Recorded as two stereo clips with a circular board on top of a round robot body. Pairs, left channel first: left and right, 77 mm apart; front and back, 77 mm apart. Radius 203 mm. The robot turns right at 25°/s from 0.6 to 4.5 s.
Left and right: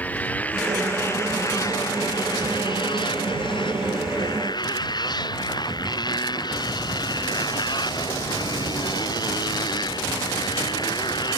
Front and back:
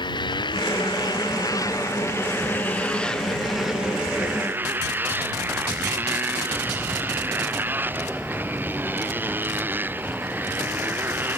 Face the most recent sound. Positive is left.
turn(degrees=115)